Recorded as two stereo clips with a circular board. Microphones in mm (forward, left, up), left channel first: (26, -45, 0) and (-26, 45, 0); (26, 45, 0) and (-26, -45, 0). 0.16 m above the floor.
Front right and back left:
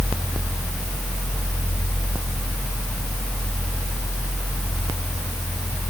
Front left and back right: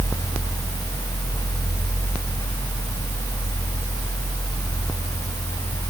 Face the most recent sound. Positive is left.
No sound to turn to.